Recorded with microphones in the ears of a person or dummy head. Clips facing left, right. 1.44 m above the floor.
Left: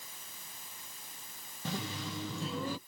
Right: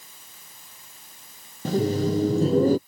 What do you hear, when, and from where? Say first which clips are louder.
1.6 s laughter: right 17 dB; 35° right (ahead or behind)